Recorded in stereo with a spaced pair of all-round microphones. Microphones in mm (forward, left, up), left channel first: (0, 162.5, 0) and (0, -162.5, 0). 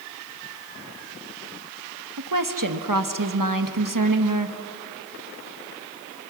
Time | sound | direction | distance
2.2 | a woman speaking | 80° right | 1.4 m